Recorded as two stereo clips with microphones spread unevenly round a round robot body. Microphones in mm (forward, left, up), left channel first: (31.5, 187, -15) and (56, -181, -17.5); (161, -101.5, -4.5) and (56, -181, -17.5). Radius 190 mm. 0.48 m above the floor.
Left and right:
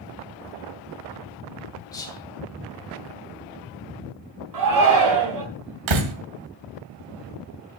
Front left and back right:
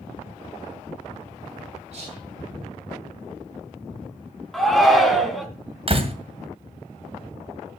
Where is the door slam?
100° right, 2 m.